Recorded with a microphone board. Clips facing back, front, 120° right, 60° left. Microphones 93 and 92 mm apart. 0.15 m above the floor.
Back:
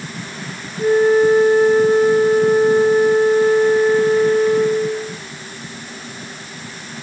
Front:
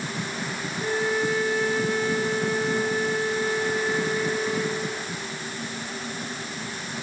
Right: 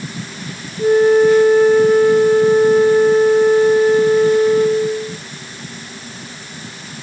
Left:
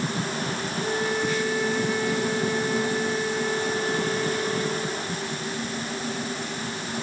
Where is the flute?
145° right.